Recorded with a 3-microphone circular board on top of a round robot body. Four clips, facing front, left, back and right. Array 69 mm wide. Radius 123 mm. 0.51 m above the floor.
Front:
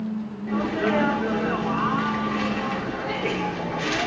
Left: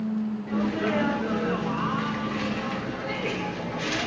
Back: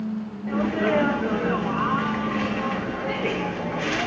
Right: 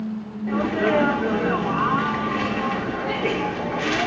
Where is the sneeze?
105° right, 0.7 m.